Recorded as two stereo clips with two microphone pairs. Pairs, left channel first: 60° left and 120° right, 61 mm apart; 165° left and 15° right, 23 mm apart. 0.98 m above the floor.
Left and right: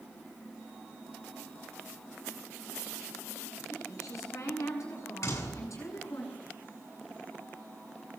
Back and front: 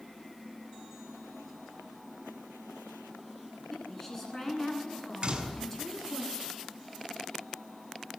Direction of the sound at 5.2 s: 35° left.